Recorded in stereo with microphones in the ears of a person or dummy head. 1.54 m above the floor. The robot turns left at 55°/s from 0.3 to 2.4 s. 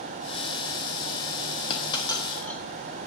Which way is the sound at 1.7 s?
35° left (ahead or behind).